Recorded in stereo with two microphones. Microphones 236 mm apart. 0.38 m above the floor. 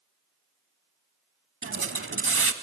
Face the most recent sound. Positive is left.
turn(degrees=-65)  # may be behind; listen again after turning